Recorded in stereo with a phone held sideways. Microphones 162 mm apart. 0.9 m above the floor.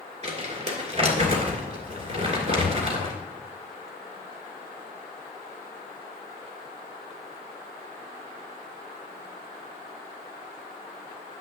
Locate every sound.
0.2 s crumpling: 45° right (ahead or behind), 2.5 m